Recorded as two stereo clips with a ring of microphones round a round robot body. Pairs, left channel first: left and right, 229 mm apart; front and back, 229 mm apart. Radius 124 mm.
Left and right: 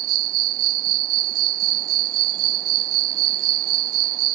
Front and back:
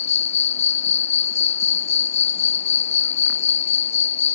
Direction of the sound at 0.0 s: 60° right.